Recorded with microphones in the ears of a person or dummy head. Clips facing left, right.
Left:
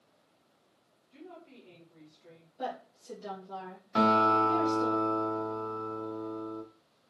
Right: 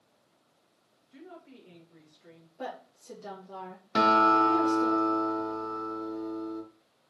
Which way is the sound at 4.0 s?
25° right (ahead or behind).